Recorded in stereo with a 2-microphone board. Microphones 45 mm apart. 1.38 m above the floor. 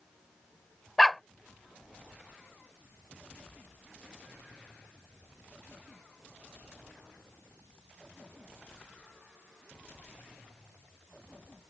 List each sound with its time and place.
1.0 s a dog barking: 5° left (ahead or behind)